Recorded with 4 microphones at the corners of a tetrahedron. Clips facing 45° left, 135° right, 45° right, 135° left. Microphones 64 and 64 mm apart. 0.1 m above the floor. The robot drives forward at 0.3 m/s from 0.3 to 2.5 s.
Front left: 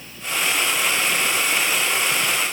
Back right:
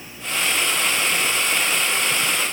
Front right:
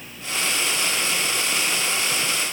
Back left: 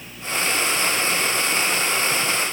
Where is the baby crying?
I don't hear a baby crying.